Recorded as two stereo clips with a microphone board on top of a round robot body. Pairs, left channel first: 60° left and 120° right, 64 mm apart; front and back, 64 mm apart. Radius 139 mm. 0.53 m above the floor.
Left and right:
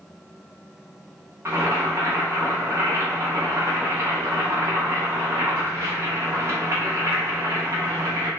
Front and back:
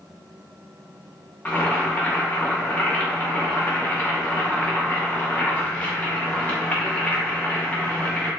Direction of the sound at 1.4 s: 65° right.